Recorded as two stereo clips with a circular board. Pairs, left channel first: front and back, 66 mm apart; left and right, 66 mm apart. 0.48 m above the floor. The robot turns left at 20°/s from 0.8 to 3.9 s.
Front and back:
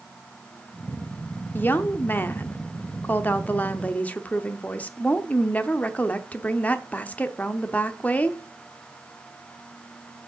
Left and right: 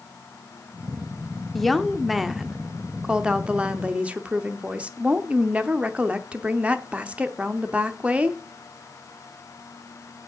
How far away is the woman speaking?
About 0.8 m.